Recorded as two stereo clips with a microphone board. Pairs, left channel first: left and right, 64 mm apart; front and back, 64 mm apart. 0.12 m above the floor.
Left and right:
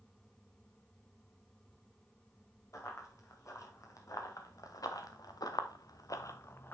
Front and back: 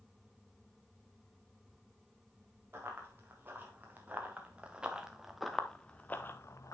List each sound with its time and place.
2.7 s running footsteps: 125° left, 3.5 m; by 6.7 s 35° left, 1.2 m